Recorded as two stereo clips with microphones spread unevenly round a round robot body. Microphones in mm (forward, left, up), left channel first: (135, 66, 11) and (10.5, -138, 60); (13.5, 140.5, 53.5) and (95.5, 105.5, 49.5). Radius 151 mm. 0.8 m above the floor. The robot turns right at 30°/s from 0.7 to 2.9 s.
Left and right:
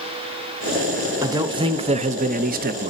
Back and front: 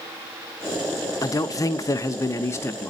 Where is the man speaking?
155° left, 0.6 m; by 2.9 s 155° right, 0.6 m.